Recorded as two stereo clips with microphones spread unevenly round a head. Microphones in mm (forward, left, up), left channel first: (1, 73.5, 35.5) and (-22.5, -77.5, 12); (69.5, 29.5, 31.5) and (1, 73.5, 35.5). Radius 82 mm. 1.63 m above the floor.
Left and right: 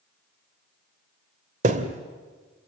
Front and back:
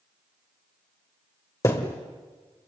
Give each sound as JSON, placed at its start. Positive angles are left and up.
{"t": 1.6, "sound": "a thud", "azimuth_deg": -75, "distance_m": 1.5}